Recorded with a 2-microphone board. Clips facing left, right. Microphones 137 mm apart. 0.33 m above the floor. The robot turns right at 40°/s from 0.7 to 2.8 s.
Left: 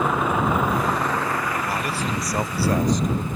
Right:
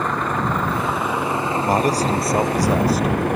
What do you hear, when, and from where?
0.0 s a vehicle: 175° left; by 3.4 s 100° right
1.6 s a man speaking: 55° right; by 3.3 s 10° right